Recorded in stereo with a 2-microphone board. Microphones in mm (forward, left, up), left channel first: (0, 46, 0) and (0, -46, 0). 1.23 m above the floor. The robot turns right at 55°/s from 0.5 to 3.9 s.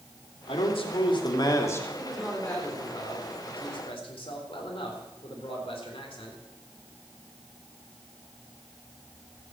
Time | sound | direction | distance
0.5 | a man speaking | 85° left | 2.5 m
2.0 | a man speaking | 10° right | 3.5 m